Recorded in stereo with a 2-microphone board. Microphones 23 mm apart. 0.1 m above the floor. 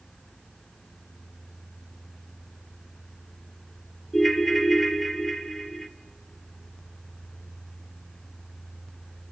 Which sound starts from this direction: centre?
A ringtone, at 4.1 s.